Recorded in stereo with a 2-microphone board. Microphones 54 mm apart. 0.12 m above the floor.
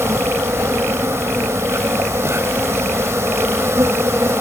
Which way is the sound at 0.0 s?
50° right (ahead or behind).